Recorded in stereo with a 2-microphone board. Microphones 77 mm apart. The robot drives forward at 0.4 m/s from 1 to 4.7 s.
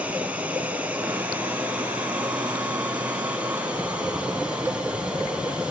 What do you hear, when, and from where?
0.0 s running water: 20° right (ahead or behind), 4 m; by 5.7 s 15° right (ahead or behind), 5.5 m